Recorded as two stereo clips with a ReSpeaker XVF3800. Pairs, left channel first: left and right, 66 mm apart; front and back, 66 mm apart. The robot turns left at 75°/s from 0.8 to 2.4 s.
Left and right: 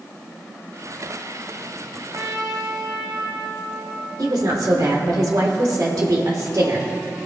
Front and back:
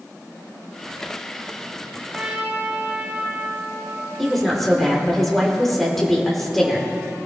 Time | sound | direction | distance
2.1 | a trumpet | 105° right | 2 m
4.2 | a woman speaking | 85° right | 2.5 m